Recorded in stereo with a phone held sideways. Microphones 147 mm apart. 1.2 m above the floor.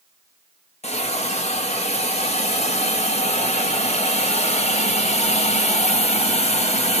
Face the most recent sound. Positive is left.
turn(degrees=50)  # may be behind; listen again after turning